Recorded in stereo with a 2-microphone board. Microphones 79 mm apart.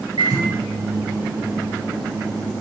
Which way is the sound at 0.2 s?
70° right (ahead or behind).